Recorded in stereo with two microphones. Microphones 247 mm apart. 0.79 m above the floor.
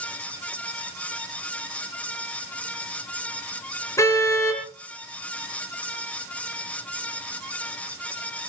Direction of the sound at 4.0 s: 10° left (ahead or behind).